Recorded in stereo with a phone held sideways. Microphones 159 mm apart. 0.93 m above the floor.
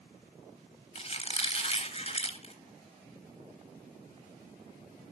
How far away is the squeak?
About 0.9 m.